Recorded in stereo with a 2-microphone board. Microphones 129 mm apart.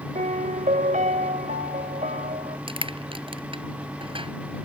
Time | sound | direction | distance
0.1 | a piano | 80° right | ?
2.7 | crushing | 40° right (ahead or behind) | ?